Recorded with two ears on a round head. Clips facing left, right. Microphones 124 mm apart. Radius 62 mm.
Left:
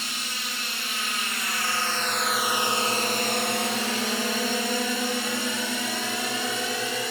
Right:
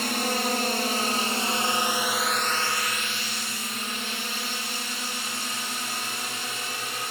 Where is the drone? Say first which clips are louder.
Right 11 dB; 45° right (ahead or behind); by 7.1 s 80° left.